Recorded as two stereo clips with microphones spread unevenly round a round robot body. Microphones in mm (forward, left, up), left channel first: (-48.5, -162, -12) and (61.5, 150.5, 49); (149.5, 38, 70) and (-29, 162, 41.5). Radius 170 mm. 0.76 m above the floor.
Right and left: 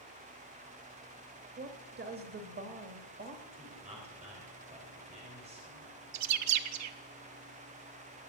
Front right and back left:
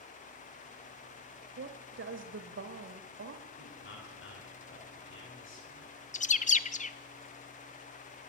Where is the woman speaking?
135° left, 1.3 m.